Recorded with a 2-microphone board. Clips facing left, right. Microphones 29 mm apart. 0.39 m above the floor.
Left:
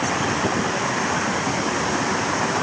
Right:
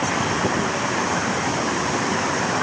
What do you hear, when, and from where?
Only background noise.